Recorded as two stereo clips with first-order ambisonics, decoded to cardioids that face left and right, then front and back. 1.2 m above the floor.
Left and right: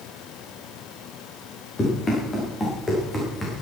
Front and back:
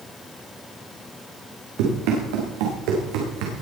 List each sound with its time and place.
1.8 s running footsteps: 165° left, 6.5 m; by 3.6 s 170° left, 5.5 m